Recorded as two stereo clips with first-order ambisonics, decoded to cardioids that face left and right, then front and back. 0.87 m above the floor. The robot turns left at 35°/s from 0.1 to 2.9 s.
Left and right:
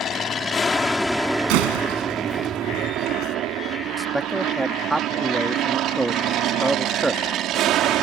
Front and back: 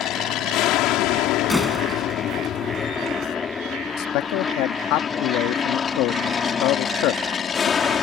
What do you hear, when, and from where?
0.0 s an aircraft: 35° left; by 8.0 s 60° right
1.5 s a door slam: 85° right; by 3.4 s 135° right
4.0 s a man speaking: 10° right